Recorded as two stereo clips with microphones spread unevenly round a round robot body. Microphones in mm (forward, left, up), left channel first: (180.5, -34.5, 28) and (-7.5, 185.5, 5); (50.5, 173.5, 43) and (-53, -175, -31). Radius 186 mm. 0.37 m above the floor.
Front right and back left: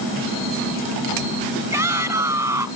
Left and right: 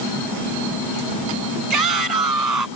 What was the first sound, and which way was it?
A shout, 145° right.